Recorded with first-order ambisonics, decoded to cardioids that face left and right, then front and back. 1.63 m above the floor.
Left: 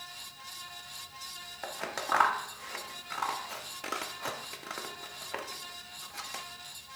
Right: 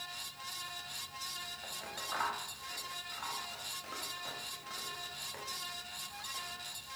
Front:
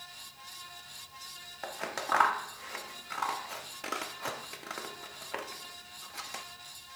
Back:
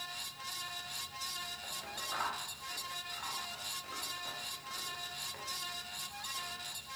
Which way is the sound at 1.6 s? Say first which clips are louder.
Left 7 dB, front 6 dB; 40° left.